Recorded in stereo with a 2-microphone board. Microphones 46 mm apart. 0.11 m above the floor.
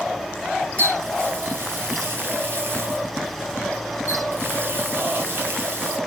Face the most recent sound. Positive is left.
turn(degrees=-55)  # may be behind; listen again after turning